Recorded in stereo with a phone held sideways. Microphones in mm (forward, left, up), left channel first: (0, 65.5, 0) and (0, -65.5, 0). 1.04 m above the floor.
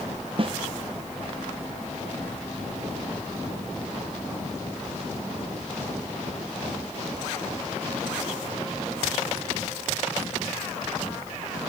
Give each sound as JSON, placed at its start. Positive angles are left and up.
{"t": 0.4, "sound": "a snare drum", "side_deg": -45, "distance_m": 0.6}